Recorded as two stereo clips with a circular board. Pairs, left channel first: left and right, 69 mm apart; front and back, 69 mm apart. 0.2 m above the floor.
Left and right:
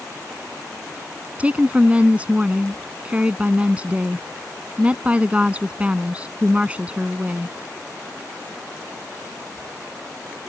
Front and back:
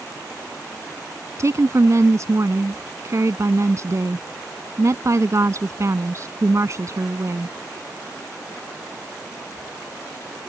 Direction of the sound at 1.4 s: 155° right.